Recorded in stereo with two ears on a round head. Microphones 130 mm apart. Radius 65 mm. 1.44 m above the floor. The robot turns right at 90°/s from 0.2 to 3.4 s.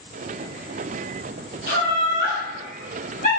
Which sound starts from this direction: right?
Laughter, at 1.7 s.